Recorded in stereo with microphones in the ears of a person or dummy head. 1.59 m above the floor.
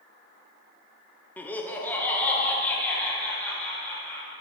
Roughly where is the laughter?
Centre.